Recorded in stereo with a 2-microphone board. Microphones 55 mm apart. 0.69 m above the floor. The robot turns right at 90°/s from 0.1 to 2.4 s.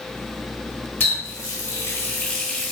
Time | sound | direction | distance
1.0 | a running tap | 45° left | 1.3 m